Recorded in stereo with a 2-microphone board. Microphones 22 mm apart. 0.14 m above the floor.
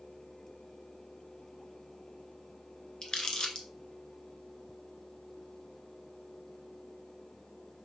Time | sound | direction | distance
3.0 | crumpling | 40° left (ahead or behind) | 0.9 m